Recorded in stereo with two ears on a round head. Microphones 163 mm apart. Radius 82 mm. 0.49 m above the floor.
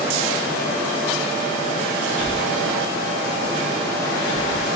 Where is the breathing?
75° left (ahead or behind).